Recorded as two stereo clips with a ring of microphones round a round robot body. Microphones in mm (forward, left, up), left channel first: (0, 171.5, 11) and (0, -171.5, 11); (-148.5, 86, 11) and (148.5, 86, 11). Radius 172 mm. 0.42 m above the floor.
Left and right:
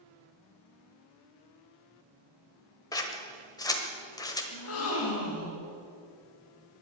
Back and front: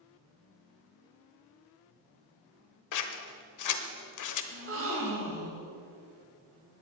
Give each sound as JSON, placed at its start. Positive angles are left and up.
{"t": 2.9, "sound": "scissors", "azimuth_deg": 170, "distance_m": 1.2}
{"t": 4.5, "sound": "a gasp", "azimuth_deg": 45, "distance_m": 2.0}